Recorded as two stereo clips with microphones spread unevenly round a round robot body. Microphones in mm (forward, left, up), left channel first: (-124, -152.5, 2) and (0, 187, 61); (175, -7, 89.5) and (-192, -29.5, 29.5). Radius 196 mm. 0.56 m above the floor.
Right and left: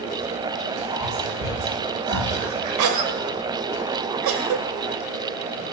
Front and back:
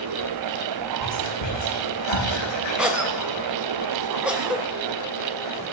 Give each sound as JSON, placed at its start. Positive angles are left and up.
{"t": 1.0, "sound": "whispering", "azimuth_deg": 25, "distance_m": 9.0}
{"t": 2.8, "sound": "a cough", "azimuth_deg": 100, "distance_m": 2.5}